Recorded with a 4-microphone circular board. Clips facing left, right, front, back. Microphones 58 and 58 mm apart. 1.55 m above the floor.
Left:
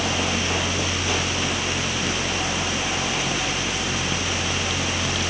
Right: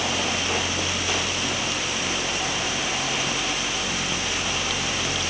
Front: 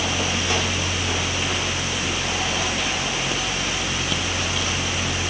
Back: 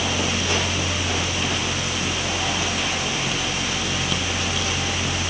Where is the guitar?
No guitar in this recording.